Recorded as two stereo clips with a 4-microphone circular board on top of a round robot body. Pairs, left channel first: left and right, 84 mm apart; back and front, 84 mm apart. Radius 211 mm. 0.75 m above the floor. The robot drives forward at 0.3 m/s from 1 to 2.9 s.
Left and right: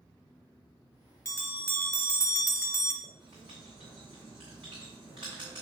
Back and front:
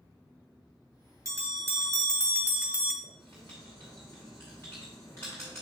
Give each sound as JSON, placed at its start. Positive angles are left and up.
{"t": 1.2, "sound": "a bell", "azimuth_deg": 35, "distance_m": 1.3}
{"t": 3.0, "sound": "writing", "azimuth_deg": -120, "distance_m": 0.5}